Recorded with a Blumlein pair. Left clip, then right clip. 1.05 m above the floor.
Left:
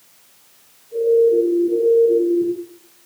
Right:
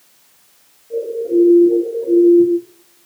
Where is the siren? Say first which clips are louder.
Left 4 dB; 50° right, 9.5 m.